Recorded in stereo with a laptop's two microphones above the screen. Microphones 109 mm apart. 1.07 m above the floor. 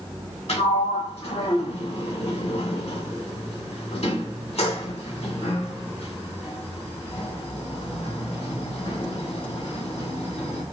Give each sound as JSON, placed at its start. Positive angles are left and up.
{"t": 0.5, "sound": "a sliding door", "side_deg": 75, "distance_m": 1.4}